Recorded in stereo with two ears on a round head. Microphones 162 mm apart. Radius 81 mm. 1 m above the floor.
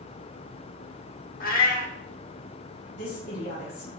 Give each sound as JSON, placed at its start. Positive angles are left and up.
{"t": 1.4, "sound": "a cat meowing", "side_deg": 50, "distance_m": 1.4}
{"t": 3.0, "sound": "a woman speaking", "side_deg": 65, "distance_m": 5.0}